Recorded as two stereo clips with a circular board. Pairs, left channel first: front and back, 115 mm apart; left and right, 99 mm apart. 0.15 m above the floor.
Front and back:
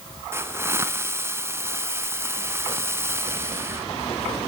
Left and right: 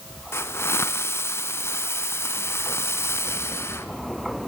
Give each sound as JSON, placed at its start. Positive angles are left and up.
{"t": 0.3, "sound": "a hiss", "azimuth_deg": 130, "distance_m": 1.2}